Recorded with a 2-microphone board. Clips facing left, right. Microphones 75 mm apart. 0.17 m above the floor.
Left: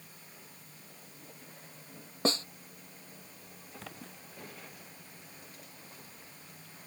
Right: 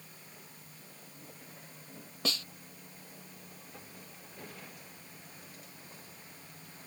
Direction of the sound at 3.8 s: 85° left.